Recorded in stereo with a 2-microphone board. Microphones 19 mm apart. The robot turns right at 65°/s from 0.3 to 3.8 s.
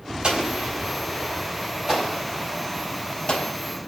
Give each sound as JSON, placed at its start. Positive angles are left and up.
{"t": 0.2, "sound": "an explosion", "side_deg": -55, "distance_m": 5.0}